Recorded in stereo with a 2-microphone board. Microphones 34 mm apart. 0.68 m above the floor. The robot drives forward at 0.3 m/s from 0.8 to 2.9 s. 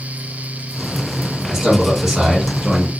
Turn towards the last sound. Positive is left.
turn(degrees=-20)  # may be behind; listen again after turning